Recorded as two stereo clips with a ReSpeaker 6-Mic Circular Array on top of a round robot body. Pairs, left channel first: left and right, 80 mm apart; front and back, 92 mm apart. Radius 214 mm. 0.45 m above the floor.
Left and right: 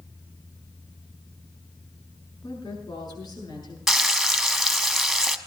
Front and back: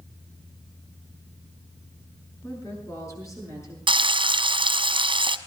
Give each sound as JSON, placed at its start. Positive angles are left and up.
{"t": 2.4, "sound": "a woman speaking", "azimuth_deg": 55, "distance_m": 6.5}
{"t": 3.9, "sound": "frying", "azimuth_deg": 180, "distance_m": 1.1}